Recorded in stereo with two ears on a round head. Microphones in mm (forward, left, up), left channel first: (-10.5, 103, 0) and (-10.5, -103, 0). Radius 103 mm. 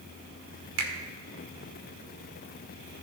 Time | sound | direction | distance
0.8 | a finger snap | 65° right (ahead or behind) | 1.7 m